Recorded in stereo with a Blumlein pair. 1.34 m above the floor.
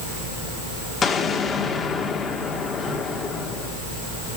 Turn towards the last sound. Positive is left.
turn(degrees=20)